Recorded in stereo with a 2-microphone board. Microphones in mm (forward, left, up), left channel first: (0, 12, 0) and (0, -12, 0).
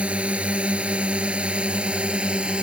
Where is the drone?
65° right (ahead or behind); by 2.6 s 55° right (ahead or behind).